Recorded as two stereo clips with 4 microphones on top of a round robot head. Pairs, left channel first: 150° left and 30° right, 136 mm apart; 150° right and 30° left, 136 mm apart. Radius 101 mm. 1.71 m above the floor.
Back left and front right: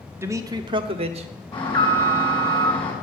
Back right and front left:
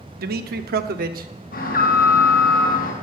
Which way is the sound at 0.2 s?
40° left.